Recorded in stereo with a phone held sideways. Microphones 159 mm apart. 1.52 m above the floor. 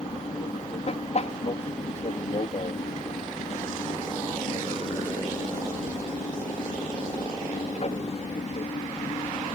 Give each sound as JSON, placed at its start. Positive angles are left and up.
{"t": 0.0, "sound": "an aircraft", "side_deg": 45}